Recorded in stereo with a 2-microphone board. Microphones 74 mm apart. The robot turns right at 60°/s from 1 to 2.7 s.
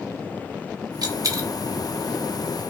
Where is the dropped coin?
60° right (ahead or behind), 0.8 m; by 1.5 s 40° right (ahead or behind), 0.8 m.